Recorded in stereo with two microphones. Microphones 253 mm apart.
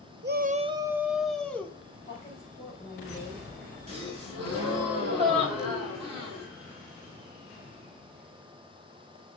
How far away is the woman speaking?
About 4 m.